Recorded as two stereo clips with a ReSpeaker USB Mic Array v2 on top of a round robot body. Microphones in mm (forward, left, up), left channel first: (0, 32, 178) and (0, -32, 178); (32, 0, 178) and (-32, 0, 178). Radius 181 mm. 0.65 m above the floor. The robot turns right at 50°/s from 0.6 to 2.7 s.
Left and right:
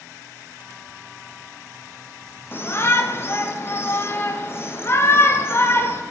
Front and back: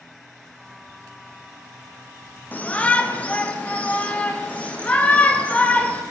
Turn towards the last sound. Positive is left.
turn(degrees=60)